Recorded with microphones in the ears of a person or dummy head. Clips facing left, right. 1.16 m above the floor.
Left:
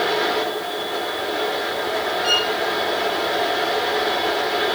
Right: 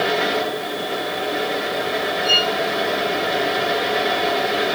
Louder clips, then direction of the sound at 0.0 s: Right 1 dB; 65° right (ahead or behind).